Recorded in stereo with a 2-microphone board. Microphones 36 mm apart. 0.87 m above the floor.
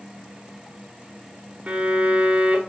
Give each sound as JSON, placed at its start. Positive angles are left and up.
{"t": 1.7, "sound": "a violin", "side_deg": -50, "distance_m": 1.2}